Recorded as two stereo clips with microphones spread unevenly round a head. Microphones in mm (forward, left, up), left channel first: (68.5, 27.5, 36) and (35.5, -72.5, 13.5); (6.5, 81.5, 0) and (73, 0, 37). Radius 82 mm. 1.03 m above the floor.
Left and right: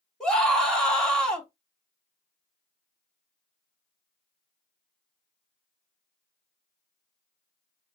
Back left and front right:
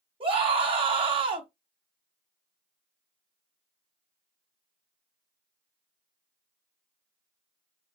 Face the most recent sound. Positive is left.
turn(degrees=-10)